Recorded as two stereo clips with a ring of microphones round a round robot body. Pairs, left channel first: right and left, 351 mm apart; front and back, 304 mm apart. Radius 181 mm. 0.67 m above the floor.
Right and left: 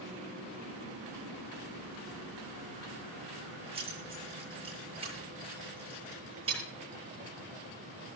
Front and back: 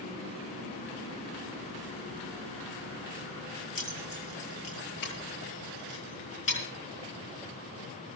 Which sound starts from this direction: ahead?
Keys jangling, at 3.8 s.